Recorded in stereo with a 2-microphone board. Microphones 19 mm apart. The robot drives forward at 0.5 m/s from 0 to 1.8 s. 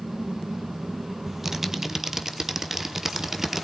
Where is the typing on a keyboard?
15° right (ahead or behind), 1.2 m.